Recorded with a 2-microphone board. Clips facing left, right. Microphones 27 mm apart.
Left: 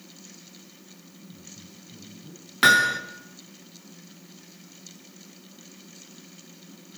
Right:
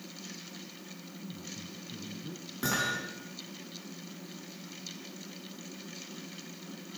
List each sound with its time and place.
1.2 s a woman speaking: 35° right (ahead or behind), 2.5 m
2.6 s hammering: 65° left (ahead or behind), 3.5 m